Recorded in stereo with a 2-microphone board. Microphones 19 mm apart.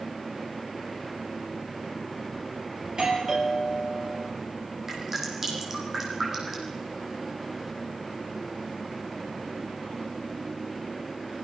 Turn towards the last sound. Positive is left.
turn(degrees=-20)  # may be behind; listen again after turning